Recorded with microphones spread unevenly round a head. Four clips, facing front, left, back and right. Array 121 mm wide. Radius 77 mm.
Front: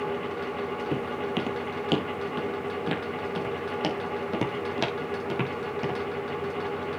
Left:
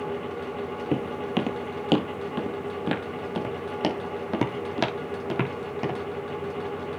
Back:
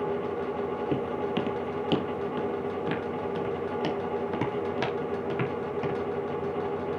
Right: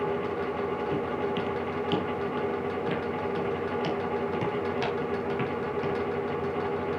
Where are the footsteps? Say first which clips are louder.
Left 1 dB, back 1 dB; 85° left, 1.8 m; by 6.0 s 65° left, 4 m.